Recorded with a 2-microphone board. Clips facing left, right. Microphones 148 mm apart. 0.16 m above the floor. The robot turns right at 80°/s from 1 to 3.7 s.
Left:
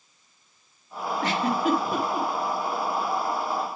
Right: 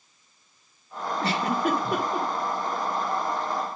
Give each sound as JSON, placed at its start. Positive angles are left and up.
{"t": 1.2, "sound": "a giggle", "side_deg": -25, "distance_m": 2.5}